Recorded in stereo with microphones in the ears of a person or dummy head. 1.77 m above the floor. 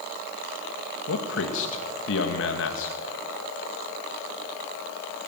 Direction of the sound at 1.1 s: 80° left.